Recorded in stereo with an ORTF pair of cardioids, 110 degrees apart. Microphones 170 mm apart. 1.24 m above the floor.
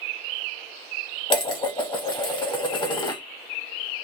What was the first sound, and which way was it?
Dishes clattering, 30° left.